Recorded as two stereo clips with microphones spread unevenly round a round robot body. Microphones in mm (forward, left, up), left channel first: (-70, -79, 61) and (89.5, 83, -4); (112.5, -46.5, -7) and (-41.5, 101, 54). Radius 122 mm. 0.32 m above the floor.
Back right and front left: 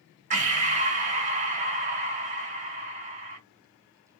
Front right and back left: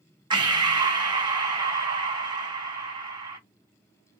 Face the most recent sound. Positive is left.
turn(degrees=55)